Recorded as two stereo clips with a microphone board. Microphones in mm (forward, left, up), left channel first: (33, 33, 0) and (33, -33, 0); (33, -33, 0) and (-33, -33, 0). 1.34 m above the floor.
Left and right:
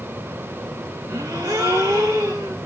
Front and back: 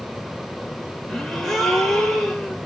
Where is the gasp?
85° right, 1.3 m.